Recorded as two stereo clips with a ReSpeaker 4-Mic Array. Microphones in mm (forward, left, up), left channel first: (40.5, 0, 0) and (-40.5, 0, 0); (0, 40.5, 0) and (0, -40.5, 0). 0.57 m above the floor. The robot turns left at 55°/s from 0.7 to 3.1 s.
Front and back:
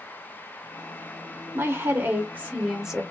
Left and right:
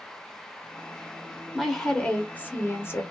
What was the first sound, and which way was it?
A woman speaking, 175° left.